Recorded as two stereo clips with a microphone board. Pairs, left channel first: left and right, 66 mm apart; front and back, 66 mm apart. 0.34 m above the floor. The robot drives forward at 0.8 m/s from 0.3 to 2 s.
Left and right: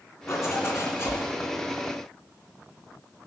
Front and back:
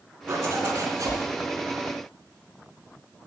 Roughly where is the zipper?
Behind left.